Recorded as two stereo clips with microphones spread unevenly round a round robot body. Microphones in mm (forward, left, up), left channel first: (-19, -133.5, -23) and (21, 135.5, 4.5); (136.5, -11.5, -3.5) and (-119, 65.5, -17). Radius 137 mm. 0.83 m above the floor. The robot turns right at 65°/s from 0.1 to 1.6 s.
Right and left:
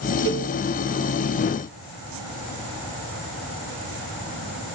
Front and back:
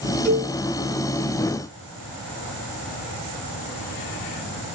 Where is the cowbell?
75° left, 1.0 m; by 0.5 s 95° left, 1.0 m.